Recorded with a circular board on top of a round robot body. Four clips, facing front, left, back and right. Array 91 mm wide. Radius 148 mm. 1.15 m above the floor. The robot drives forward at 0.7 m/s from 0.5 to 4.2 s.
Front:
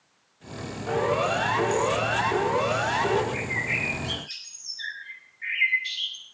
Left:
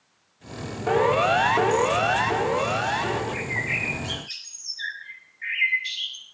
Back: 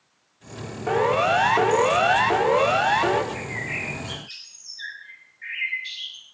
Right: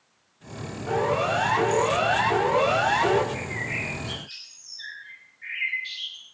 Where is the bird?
90° left, 7 m; by 6.2 s 95° left, 7 m.